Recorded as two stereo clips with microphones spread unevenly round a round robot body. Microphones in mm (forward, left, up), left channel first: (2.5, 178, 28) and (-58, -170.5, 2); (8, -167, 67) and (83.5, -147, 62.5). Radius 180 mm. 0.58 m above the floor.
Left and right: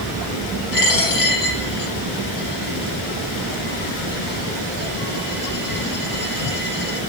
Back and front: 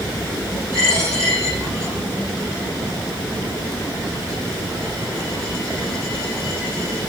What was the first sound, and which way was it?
A dropped coin, 90° left.